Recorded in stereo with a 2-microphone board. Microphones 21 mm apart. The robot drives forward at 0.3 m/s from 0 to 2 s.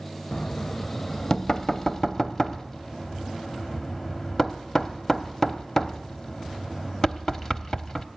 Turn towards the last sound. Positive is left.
turn(degrees=25)  # may be behind; listen again after turning